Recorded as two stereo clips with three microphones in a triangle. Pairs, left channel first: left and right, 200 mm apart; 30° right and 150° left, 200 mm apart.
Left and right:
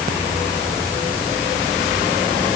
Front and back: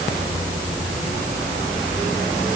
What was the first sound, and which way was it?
Only background noise.